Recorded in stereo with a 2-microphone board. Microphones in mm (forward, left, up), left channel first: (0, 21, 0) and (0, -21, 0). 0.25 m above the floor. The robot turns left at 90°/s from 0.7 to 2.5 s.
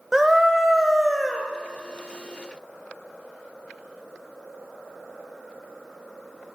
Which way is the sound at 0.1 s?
10° right (ahead or behind).